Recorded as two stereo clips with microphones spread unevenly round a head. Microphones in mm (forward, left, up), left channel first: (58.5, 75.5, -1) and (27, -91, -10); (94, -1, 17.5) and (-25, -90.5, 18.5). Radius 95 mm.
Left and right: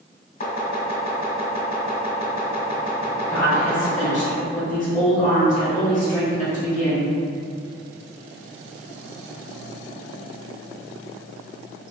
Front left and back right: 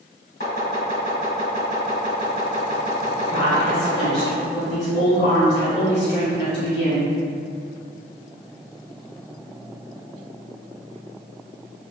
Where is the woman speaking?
35° left, 1.6 m.